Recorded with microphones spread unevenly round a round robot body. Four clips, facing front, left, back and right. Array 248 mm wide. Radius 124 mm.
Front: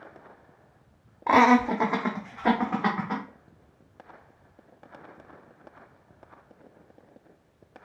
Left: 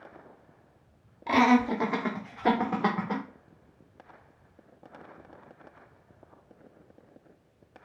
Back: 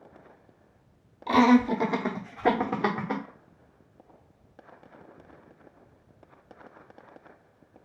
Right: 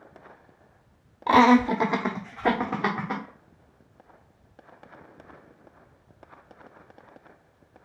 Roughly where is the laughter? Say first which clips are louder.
Right 5 dB, front 1 dB; right.